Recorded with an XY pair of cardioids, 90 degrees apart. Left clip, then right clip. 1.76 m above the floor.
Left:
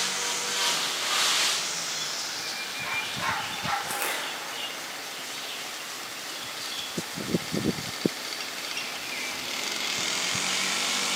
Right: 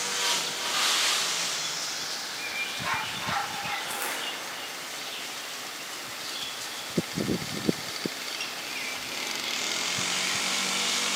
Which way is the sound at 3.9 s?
20° left.